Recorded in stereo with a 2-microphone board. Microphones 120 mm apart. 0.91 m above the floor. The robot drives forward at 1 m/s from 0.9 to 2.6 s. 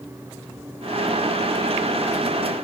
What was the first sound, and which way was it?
Only background noise.